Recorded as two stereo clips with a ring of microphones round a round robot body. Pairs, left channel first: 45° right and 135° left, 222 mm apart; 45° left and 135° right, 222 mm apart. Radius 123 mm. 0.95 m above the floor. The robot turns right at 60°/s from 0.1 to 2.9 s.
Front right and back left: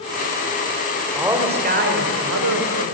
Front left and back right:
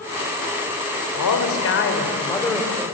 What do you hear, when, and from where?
1.1 s a man speaking: 50° left, 4.5 m; by 2.8 s 150° left, 4.5 m